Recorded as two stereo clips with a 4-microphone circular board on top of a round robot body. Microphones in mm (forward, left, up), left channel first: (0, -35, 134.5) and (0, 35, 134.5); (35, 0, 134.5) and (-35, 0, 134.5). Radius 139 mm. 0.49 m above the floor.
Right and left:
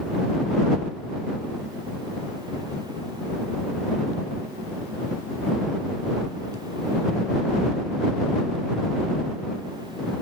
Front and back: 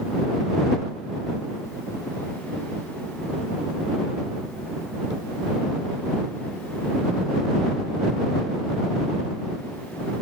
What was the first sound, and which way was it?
Only background noise.